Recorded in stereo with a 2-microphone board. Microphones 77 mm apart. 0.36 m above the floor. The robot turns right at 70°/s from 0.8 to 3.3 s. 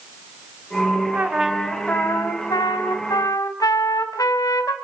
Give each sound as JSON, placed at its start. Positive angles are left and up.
{"t": 1.1, "sound": "a trumpet", "azimuth_deg": -30, "distance_m": 3.0}